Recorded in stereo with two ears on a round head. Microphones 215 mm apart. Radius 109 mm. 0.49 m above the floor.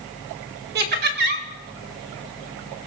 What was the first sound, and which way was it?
Laughter, 40° right (ahead or behind).